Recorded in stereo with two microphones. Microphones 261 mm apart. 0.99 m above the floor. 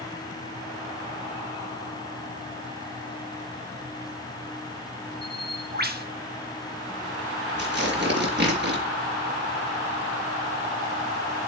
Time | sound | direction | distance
5.2 | a bird | 35° right (ahead or behind) | 1.5 m
7.6 | tearing paper | 40° right (ahead or behind) | 4 m